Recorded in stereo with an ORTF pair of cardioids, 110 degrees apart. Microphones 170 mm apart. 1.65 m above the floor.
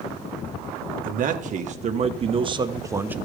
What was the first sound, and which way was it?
A man speaking, 55° right.